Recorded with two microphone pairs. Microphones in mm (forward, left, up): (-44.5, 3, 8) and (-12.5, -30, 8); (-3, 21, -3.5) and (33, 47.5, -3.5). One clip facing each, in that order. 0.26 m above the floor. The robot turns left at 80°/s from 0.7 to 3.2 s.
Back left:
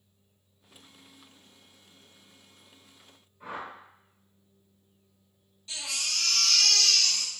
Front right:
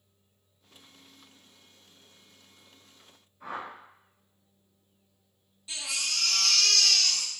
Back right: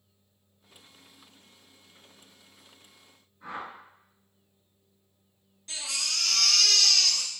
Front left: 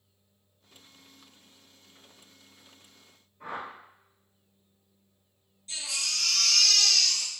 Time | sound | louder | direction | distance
3.4 | a whoosh | front right 1 dB, front left 1 dB | 60° left | 1.9 m
5.7 | a baby crying | front right 1 dB, even | 125° right | 1.0 m